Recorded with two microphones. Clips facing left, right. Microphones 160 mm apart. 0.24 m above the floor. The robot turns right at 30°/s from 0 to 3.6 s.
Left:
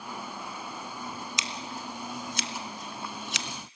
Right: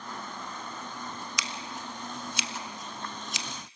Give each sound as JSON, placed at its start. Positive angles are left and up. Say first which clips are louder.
{"t": 1.4, "sound": "scissors", "louder": "left 1 dB", "side_deg": 25, "distance_m": 1.0}